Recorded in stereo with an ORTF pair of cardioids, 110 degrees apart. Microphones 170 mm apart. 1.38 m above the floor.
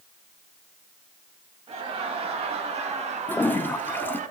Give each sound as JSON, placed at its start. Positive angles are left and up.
{"t": 1.7, "sound": "laughter", "azimuth_deg": -35, "distance_m": 3.0}
{"t": 3.3, "sound": "a toilet flushing", "azimuth_deg": 10, "distance_m": 0.8}